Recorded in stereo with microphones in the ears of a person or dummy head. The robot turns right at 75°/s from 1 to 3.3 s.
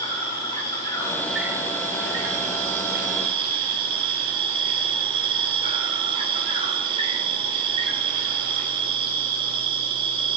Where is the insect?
155° left, 4.5 m; by 10.4 s 35° right, 4.5 m.